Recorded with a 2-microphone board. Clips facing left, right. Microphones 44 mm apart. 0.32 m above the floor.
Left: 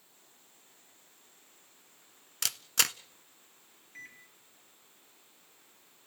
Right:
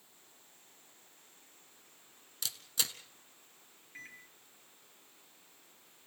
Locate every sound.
2.4 s a camera shutter: 80° left, 0.6 m
4.0 s a microwave: 10° right (ahead or behind), 4.5 m